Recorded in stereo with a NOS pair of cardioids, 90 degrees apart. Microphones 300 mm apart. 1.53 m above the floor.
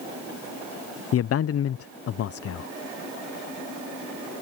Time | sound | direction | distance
1.1 | a man speaking | 50° left | ?